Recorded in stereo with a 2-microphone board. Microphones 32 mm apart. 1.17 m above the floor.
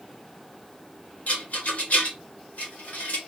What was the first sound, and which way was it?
A rattle, 55° left (ahead or behind).